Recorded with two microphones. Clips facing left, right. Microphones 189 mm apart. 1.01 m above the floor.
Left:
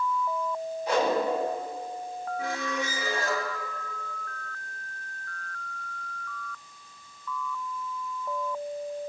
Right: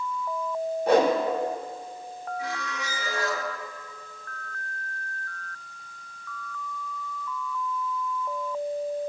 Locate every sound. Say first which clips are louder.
0.9 s a whoosh: right 5 dB; 60° right (ahead or behind), 3 m
2.4 s a squeak: left 3 dB; 50° left (ahead or behind), 2 m